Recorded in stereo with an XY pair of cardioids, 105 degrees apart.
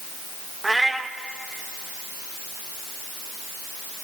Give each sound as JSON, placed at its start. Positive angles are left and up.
{"t": 0.6, "sound": "a cat meowing", "azimuth_deg": -15, "distance_m": 1.7}